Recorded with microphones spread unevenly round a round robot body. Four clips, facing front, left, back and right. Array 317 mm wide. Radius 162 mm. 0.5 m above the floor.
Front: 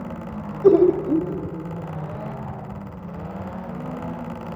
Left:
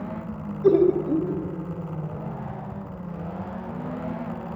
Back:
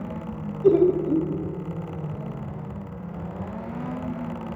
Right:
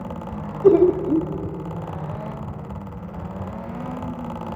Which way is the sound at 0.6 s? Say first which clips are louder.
Right 4 dB, front 3 dB; 55° right.